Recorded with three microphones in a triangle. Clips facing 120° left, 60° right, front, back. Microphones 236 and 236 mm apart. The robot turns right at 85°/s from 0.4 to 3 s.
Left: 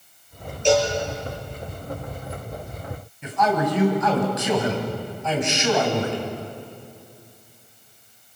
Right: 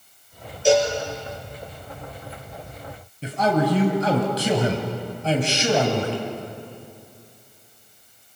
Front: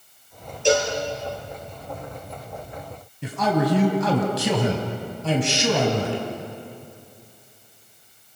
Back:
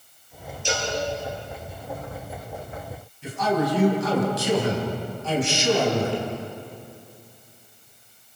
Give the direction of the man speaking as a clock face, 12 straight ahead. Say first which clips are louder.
Right 2 dB, front 2 dB; 12 o'clock.